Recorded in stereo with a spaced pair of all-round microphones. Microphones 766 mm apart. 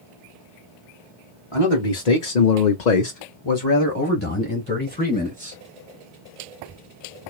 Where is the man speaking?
40° left (ahead or behind), 1.3 m; by 5.6 s 10° left (ahead or behind), 3 m.